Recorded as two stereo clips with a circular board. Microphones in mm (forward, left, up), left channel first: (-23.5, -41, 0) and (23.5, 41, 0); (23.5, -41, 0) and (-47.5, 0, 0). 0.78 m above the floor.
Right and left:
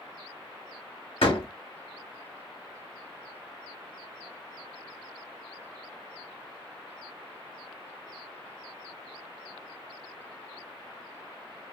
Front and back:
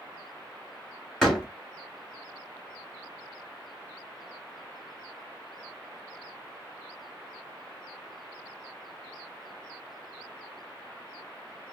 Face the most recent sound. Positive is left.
turn(degrees=-115)